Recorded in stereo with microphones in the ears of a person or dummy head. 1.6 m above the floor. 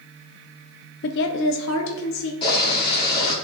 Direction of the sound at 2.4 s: 15° left (ahead or behind).